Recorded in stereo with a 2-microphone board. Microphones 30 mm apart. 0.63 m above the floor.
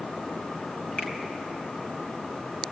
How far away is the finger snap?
About 3.5 m.